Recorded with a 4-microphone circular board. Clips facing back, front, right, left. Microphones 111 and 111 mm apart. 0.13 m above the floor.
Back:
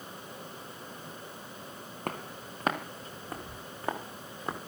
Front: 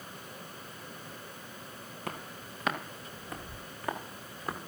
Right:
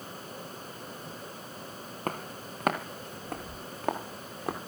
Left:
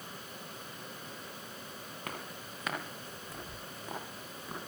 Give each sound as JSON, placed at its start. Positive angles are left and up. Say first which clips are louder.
{"t": 2.1, "sound": "footsteps", "louder": "back 4 dB, right 9 dB", "azimuth_deg": -135, "distance_m": 3.0}